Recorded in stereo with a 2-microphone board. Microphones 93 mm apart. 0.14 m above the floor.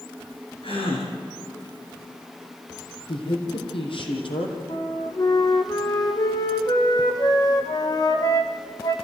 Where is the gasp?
70° left (ahead or behind), 6 m.